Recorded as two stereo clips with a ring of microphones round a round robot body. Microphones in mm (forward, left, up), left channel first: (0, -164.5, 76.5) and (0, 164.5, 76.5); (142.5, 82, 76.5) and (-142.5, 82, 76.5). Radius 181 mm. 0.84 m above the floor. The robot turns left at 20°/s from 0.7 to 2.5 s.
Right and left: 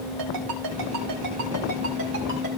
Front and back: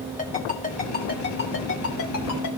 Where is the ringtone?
65° left, 4 m; by 2.5 s 30° left, 4 m.